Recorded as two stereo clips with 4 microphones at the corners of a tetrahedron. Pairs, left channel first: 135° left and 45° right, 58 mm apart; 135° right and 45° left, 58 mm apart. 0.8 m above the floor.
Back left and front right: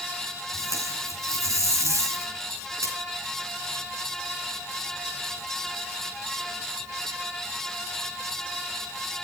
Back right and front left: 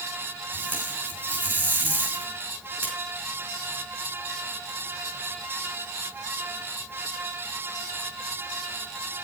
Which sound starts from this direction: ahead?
Tape being pulled, at 0.5 s.